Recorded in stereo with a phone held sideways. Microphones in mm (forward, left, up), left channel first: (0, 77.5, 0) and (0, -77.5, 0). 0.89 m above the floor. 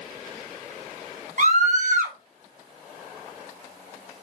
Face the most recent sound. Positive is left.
turn(degrees=-55)  # may be behind; listen again after turning